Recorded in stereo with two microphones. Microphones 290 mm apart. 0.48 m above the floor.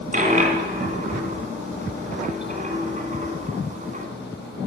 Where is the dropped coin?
25° right (ahead or behind), 1.6 m.